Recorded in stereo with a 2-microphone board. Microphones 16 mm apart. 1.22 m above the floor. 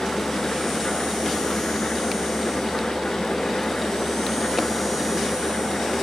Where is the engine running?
70° left (ahead or behind).